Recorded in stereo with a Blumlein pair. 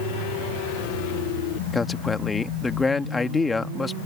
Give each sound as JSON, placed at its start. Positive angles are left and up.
{"t": 1.7, "sound": "a man speaking", "azimuth_deg": 10}